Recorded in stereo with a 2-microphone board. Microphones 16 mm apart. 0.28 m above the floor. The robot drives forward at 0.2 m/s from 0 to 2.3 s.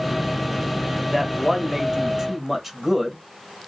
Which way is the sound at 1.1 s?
10° right (ahead or behind).